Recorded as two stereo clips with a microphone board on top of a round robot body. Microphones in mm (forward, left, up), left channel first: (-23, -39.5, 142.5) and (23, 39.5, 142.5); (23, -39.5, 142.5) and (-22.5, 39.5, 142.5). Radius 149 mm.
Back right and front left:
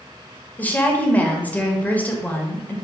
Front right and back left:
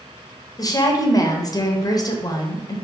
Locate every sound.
0.6 s a woman speaking: 55° right, 0.9 m